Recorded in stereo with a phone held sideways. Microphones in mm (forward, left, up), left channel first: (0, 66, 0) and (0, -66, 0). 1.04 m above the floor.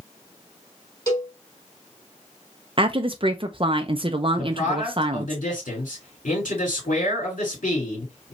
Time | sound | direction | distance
1.1 | a cowbell | 30° left (ahead or behind) | 2.5 m
2.8 | a woman speaking | 40° right (ahead or behind) | 0.6 m
4.4 | a man speaking | 80° left | 3 m